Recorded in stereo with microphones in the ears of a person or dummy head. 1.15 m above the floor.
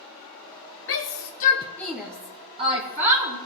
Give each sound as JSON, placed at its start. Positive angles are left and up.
{"t": 0.9, "sound": "a shout", "side_deg": 60, "distance_m": 1.0}